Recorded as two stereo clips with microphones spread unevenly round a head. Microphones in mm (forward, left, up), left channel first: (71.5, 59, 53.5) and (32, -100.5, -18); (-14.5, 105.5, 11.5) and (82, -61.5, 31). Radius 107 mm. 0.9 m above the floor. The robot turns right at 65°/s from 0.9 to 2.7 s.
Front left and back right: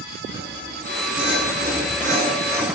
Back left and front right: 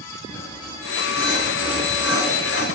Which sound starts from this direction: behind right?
Sawing, at 0.3 s.